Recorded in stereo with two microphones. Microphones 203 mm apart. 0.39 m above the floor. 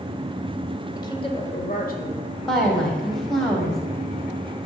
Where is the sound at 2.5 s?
Centre (ahead or behind), 2 m.